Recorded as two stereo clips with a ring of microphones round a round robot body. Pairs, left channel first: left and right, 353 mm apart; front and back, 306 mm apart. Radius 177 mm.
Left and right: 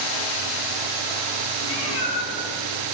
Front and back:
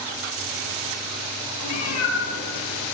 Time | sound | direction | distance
1.6 | a cat meowing | 35° left | 8 m